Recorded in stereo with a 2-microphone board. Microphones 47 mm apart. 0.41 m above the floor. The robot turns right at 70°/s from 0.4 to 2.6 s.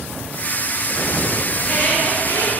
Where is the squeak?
15° left, 1.9 m; by 2.5 s 85° left, 1.9 m.